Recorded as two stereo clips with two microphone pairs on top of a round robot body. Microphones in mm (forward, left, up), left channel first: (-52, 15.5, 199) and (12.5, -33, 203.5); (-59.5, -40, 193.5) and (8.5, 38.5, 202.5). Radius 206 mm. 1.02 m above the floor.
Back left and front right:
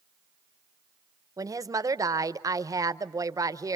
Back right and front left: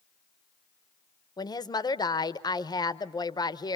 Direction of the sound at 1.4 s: 85° right.